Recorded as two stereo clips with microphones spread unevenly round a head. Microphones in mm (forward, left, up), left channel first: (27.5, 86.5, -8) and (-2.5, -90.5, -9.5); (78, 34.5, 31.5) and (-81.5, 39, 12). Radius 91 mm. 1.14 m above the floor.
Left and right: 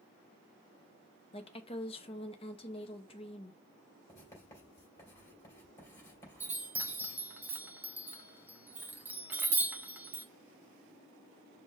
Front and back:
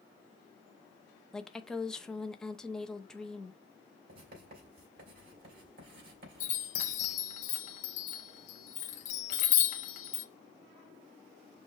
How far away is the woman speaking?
About 0.6 m.